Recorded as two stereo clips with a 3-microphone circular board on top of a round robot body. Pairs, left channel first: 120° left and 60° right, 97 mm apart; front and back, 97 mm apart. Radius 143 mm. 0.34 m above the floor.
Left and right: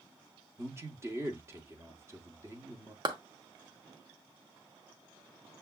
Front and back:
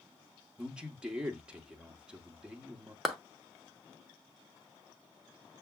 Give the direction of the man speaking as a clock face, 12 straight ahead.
3 o'clock.